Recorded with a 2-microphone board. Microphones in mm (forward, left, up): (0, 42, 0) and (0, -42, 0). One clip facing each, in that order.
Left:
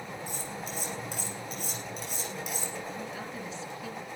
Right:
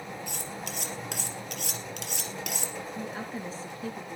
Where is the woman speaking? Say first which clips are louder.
Right 2 dB; 40° right (ahead or behind), 4.5 m.